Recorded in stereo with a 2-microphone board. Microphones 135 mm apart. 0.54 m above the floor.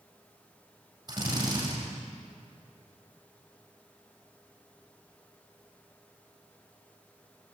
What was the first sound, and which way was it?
A drill, 35° right (ahead or behind).